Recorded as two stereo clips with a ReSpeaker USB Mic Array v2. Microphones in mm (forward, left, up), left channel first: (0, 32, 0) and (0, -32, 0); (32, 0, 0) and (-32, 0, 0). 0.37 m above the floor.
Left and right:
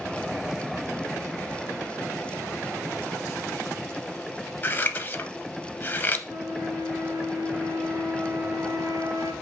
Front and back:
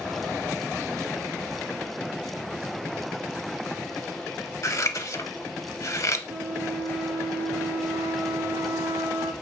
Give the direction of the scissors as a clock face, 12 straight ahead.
11 o'clock.